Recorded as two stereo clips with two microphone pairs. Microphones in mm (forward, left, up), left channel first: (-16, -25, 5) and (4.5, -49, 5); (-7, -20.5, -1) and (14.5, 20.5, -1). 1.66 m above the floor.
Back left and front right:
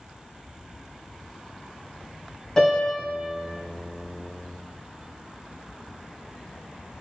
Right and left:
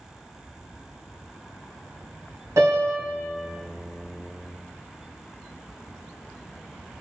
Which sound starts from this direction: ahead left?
A piano, at 2.6 s.